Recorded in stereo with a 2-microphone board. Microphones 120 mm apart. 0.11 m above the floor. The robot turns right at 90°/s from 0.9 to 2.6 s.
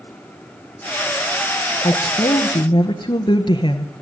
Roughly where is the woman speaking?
Ahead left.